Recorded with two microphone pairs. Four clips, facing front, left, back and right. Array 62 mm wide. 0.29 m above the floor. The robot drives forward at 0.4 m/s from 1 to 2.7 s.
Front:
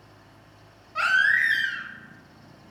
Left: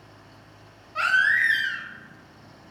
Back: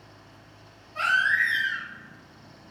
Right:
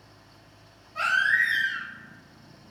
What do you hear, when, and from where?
0.9 s a baby crying: 40° left, 0.8 m; by 1.8 s 60° left, 0.6 m